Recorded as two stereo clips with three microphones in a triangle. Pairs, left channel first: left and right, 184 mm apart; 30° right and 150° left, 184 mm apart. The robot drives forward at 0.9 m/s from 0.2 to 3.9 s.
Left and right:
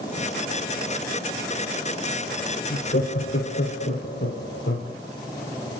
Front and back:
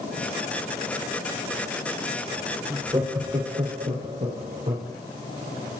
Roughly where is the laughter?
Left.